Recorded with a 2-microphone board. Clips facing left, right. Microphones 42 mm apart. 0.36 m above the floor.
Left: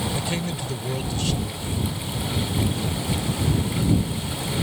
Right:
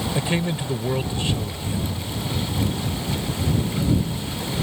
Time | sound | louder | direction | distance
0.1 | a man speaking | right 4 dB | 25° right (ahead or behind) | ?